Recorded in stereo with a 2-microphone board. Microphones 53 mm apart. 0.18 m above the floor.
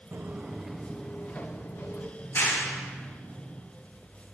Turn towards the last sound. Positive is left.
turn(degrees=55)  # may be behind; listen again after turning